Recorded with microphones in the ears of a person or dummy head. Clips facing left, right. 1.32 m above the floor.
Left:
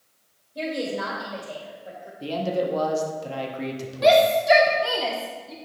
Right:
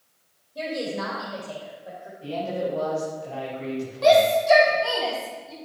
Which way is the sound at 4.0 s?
20° left (ahead or behind).